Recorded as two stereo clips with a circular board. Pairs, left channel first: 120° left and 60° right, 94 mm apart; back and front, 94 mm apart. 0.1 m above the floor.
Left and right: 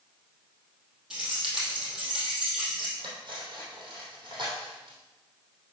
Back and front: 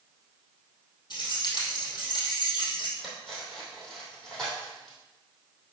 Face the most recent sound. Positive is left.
turn(degrees=-95)